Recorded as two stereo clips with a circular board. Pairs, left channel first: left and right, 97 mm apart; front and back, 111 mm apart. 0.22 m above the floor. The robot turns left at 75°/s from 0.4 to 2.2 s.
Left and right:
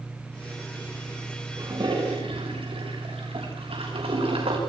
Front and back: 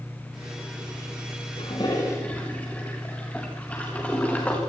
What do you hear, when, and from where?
1.6 s a toilet flushing: 30° right, 5.5 m; by 4.6 s 80° right, 5.5 m